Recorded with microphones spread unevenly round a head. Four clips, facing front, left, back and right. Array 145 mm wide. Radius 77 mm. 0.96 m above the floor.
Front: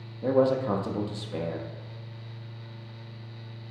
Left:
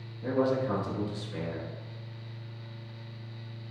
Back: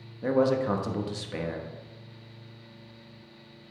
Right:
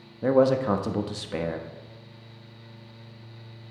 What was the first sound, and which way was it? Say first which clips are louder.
A man speaking: right 7 dB, front 1 dB; 80° right.